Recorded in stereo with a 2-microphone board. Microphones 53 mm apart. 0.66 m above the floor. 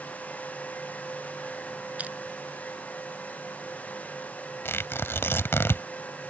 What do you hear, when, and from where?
2.0 s crushing: 25° right (ahead or behind)
4.7 s tearing paper: 45° left (ahead or behind)